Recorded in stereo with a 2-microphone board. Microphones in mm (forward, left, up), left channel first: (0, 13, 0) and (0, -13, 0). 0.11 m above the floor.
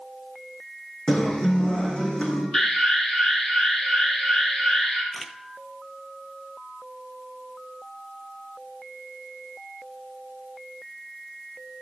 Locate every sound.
1.1 s a guitar: 30° left (ahead or behind), 5 m
2.5 s an alarm: 10° left (ahead or behind), 3.5 m
5.1 s a camera shutter: 5° right (ahead or behind), 0.8 m